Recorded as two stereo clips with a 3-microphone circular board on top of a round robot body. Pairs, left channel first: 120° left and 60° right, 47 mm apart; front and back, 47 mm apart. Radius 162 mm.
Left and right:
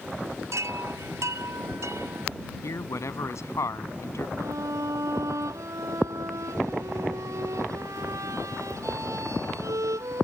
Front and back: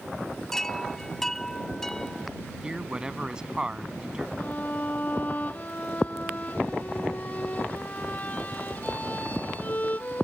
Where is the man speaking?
105° left.